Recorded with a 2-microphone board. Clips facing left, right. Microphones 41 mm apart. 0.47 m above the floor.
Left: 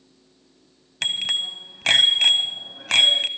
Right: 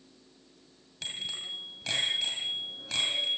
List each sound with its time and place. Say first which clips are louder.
1.0 s a bicycle bell: left 12 dB; 75° left (ahead or behind), 2 m